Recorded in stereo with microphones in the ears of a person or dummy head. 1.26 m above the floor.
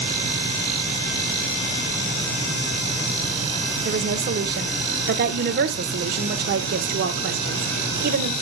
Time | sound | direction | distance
3.9 | a woman speaking | 50° right (ahead or behind) | 1.2 m